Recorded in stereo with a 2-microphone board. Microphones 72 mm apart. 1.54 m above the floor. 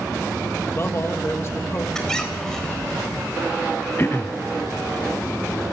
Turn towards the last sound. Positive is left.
turn(degrees=35)  # may be behind; listen again after turning